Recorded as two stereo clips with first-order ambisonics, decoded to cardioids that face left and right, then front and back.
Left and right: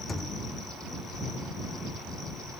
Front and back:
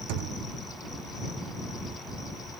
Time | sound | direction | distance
0.1 | a thud | 165° left | ?